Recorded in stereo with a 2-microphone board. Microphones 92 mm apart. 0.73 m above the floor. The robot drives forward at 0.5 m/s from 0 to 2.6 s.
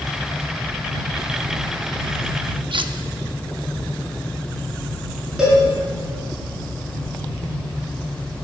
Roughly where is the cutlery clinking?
Right.